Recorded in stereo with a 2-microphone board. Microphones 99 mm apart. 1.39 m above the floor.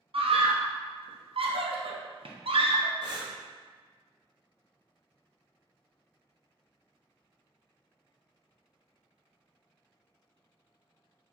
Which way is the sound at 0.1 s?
65° right (ahead or behind).